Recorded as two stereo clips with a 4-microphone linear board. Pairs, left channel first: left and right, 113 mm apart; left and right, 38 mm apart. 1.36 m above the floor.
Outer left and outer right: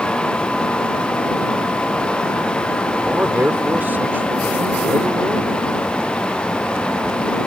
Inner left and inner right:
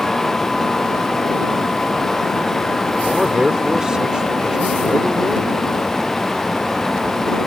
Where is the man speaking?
15° right (ahead or behind).